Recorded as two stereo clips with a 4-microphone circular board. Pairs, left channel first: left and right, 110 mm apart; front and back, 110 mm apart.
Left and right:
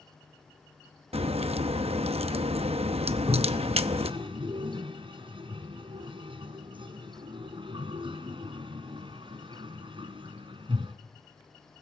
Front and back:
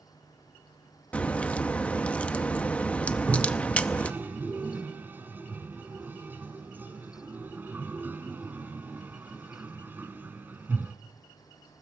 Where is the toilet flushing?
110° right, 1.3 m.